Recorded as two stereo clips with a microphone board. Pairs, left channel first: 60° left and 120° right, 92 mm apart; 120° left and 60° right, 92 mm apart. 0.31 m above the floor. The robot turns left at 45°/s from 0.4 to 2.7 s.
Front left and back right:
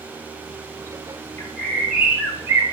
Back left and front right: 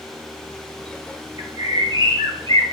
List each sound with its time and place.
1.4 s a bird: 5° right, 1.9 m; by 2.6 s 65° right, 1.9 m